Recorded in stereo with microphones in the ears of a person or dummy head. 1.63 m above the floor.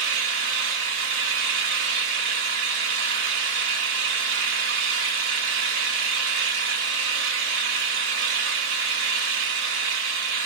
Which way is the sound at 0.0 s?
50° right (ahead or behind).